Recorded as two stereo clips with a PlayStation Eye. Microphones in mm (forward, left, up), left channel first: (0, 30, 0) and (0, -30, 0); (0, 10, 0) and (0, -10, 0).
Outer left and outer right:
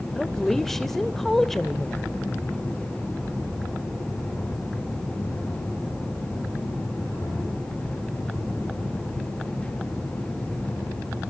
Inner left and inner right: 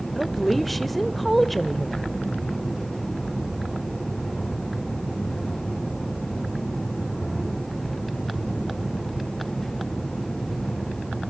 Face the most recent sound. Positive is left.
turn(degrees=5)  # may be behind; listen again after turning